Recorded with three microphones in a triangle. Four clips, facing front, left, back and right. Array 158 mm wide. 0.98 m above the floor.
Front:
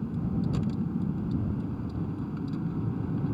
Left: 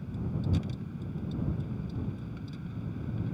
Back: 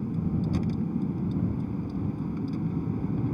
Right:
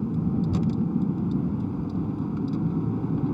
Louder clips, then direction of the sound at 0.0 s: Right 10 dB, back 1 dB; 100° right.